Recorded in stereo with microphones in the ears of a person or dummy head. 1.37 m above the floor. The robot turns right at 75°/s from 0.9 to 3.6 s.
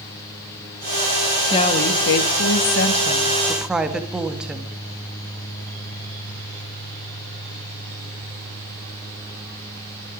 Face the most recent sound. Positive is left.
turn(degrees=-175)